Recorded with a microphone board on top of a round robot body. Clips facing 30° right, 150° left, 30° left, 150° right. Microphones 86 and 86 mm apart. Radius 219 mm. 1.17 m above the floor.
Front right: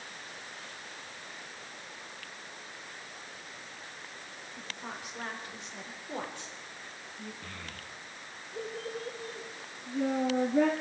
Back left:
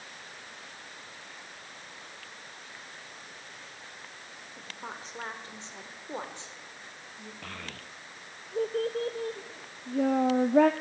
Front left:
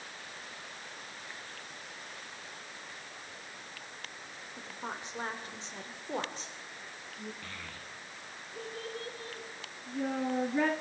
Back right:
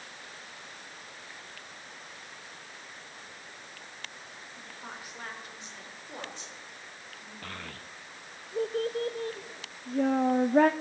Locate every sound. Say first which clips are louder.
4.6 s a woman speaking: back left 1 dB, front left 5 dB; 95° left, 4 m; by 7.3 s 75° left, 4.5 m
7.4 s a child speaking: back left 2 dB, back right 3 dB; 170° left, 0.6 m